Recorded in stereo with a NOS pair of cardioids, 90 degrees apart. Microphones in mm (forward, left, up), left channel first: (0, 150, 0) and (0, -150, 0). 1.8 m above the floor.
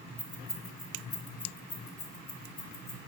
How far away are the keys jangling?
About 2.5 m.